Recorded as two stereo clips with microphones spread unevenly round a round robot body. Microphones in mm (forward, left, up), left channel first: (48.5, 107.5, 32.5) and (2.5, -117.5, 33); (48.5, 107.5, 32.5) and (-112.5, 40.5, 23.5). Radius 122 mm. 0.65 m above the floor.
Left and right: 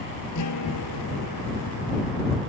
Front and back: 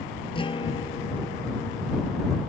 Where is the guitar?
85° left.